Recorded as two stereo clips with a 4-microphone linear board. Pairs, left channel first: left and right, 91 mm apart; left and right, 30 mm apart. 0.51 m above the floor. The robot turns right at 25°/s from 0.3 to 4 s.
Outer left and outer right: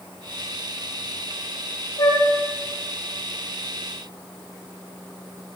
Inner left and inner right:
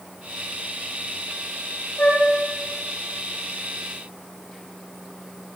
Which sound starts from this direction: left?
A flute, at 2.0 s.